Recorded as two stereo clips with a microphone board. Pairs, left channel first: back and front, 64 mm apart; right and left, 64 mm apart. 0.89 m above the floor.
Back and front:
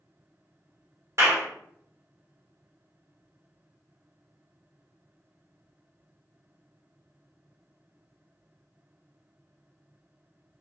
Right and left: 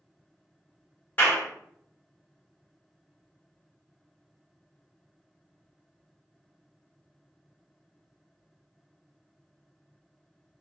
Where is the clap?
30° right, 1.2 m.